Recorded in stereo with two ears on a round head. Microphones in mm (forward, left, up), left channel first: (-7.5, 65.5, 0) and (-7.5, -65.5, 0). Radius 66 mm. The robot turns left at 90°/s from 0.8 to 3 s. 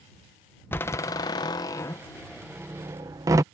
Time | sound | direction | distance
0.7 | a door slam | 15° left (ahead or behind) | ?